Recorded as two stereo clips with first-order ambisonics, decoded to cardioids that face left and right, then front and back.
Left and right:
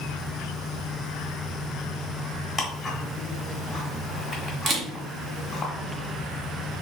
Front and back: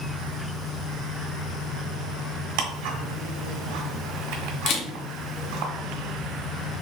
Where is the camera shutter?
35° right, 0.7 m.